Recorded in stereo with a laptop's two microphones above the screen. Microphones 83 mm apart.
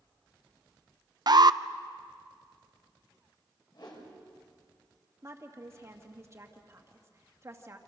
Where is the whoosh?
60° left (ahead or behind), 4.5 m.